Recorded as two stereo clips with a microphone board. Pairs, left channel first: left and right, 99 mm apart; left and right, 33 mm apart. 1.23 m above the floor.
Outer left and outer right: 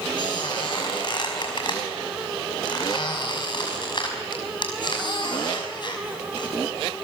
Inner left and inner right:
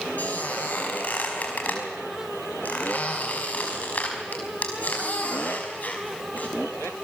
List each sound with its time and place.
0.2 s a squeak: 50° left (ahead or behind), 5 m